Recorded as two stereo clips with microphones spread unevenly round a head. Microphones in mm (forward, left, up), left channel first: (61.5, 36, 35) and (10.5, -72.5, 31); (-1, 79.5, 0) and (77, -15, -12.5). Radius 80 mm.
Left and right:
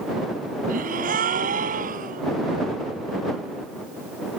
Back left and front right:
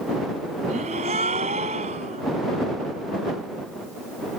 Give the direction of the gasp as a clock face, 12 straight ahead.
4 o'clock.